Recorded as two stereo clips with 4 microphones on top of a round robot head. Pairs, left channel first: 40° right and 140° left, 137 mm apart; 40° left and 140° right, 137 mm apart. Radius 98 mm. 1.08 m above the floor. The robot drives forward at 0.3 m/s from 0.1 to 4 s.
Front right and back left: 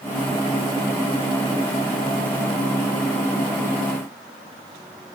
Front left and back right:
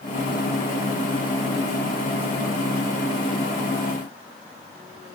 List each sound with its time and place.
Only background noise.